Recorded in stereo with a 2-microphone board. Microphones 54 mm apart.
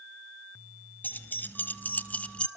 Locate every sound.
1.0 s keys jangling: 35° left (ahead or behind), 1.5 m; by 2.5 s 20° left (ahead or behind), 1.1 m